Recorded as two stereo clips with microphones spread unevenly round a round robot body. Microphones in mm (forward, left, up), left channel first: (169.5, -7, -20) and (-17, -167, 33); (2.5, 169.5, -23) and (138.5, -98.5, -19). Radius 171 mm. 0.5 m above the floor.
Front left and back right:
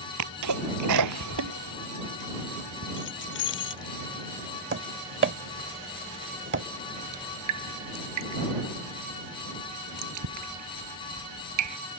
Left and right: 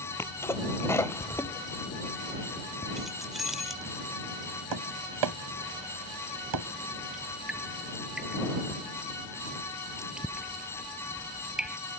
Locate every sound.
0.2 s a sneeze: 160° right
3.0 s keys jangling: 25° left
4.7 s tapping: 95° right
7.1 s dripping: 150° right